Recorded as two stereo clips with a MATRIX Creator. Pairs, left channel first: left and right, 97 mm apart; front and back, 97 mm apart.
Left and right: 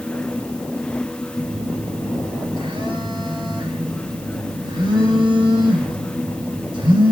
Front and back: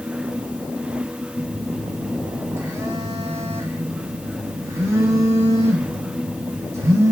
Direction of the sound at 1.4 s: 120° right.